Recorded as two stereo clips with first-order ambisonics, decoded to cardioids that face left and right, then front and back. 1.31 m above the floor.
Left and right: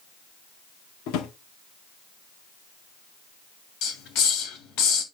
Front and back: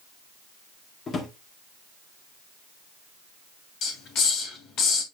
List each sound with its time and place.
1.1 s a drawer: 65° left, 1.7 m
3.8 s a hiss: 50° left, 2.5 m